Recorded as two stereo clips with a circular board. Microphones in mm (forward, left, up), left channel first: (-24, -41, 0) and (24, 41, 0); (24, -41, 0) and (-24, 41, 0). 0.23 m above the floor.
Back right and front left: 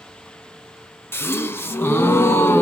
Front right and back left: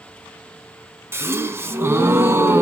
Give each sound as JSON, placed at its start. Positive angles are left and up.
{"t": 1.1, "sound": "a gasp", "azimuth_deg": 180, "distance_m": 0.9}